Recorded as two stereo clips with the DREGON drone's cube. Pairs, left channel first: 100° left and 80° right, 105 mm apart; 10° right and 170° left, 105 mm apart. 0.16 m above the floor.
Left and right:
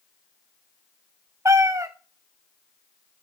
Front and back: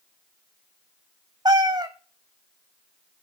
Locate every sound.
1.4 s a cat meowing: 140° right, 0.9 m